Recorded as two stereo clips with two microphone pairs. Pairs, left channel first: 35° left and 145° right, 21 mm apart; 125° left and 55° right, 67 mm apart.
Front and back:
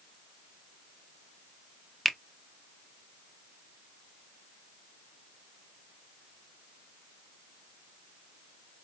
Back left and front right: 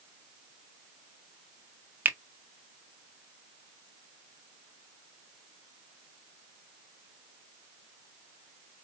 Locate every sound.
2.0 s a finger snap: 55° right, 0.5 m